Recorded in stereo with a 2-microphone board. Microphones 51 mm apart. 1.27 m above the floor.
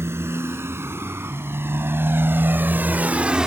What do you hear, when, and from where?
0.0 s a motorcycle: 55° right (ahead or behind); by 3.5 s 15° right (ahead or behind)